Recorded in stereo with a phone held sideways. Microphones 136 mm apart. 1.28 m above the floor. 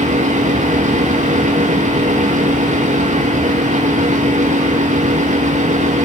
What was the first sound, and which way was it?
A fan, 60° right (ahead or behind).